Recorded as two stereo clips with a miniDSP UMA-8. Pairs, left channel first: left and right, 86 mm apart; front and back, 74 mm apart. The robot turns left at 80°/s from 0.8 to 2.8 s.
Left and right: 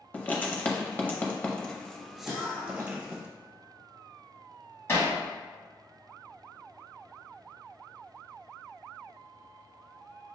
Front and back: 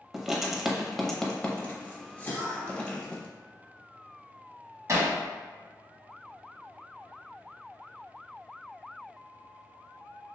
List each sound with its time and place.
0.1 s writing: 105° left, 0.7 m; by 3.2 s 55° right, 0.7 m
2.2 s a cough: 30° right, 1.4 m; by 3.0 s 75° right, 1.4 m
4.9 s hammering: 145° left, 1.1 m